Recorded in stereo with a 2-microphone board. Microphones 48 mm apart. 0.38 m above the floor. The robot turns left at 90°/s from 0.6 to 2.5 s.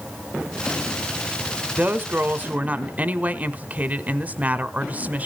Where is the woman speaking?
55° right, 1.1 m; by 5.3 s 125° right, 1.1 m.